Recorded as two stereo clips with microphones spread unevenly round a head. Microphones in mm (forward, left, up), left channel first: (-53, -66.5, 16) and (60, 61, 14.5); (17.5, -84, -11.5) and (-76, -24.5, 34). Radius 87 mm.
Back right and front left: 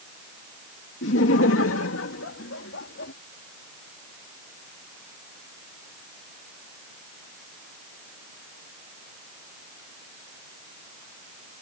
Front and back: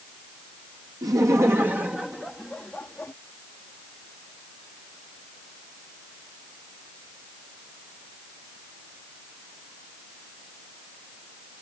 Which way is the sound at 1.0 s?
155° right.